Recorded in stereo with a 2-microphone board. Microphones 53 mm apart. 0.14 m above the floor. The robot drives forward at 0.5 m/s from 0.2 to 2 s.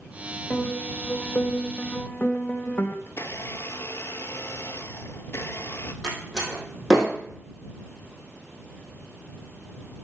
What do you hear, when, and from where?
0.5 s a piano: 15° left (ahead or behind), 1.7 m; by 3.0 s 30° left (ahead or behind), 1.0 m
3.1 s a blender: 60° left (ahead or behind), 0.5 m
6.0 s a door slam: 5° right (ahead or behind), 3.5 m